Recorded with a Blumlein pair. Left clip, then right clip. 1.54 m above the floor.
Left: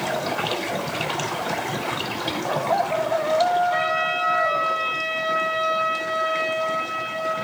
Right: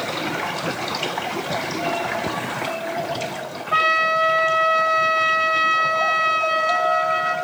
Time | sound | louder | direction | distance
3.7 | a trumpet | right 5 dB | 65° right | 2.5 m